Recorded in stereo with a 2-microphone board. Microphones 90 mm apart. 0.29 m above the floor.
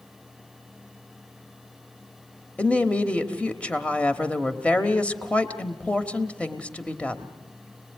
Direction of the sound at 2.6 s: 15° left (ahead or behind).